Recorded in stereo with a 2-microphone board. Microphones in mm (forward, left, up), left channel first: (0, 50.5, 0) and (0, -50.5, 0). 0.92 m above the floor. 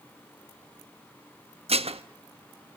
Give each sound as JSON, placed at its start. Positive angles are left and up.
{"t": 1.7, "sound": "dishes clattering", "side_deg": -75, "distance_m": 0.7}